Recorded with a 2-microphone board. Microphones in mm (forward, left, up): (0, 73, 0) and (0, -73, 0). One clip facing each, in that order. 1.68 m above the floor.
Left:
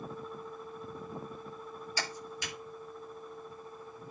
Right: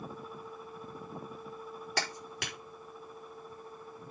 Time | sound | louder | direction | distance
2.0 | a clap | right 3 dB | 75° right (ahead or behind) | 4.5 m